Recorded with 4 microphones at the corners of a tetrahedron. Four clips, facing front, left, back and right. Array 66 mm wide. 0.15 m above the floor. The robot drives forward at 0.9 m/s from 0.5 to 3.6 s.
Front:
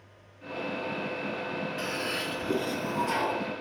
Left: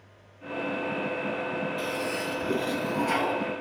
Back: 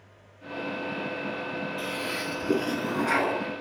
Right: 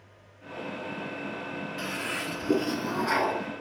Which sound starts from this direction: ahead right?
A toilet flushing, at 1.8 s.